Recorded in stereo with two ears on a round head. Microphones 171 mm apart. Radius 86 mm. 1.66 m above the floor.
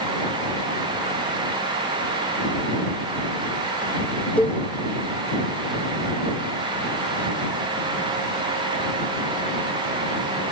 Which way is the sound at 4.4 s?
10° left (ahead or behind).